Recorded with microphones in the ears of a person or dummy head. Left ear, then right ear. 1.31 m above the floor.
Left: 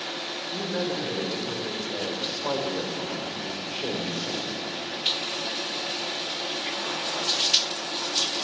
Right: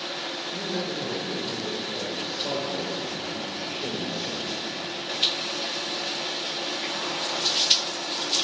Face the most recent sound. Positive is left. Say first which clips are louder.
# left 4 dB
turn(degrees=40)  # may be behind; listen again after turning